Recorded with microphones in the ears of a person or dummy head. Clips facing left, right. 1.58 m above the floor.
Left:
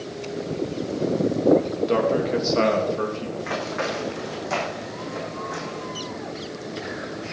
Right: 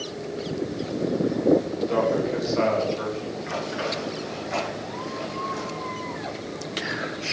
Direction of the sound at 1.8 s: 60° left (ahead or behind).